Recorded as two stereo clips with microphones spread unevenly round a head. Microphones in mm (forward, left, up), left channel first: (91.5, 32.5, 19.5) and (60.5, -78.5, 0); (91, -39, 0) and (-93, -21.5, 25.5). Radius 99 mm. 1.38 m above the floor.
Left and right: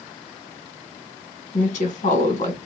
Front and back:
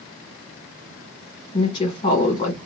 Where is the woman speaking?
65° left, 1.9 m.